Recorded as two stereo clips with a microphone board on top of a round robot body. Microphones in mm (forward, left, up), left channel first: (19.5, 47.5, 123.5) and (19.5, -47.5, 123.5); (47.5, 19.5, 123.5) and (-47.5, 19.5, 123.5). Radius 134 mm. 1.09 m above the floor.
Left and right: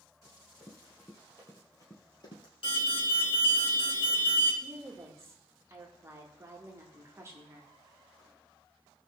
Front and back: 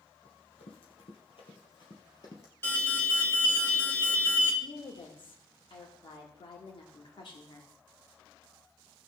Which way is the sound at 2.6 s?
65° left.